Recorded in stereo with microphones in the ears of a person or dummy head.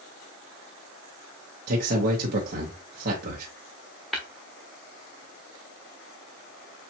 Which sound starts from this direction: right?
A man speaking, at 1.7 s.